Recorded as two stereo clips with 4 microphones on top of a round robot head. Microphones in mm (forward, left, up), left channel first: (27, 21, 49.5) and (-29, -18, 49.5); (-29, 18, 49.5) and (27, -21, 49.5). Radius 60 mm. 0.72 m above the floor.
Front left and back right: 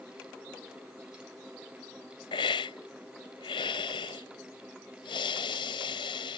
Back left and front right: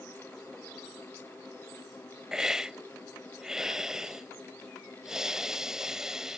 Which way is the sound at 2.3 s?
45° left.